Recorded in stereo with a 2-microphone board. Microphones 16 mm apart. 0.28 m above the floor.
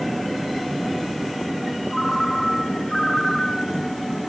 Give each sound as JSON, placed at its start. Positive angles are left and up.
{"t": 1.9, "sound": "a ringtone", "side_deg": 25, "distance_m": 3.0}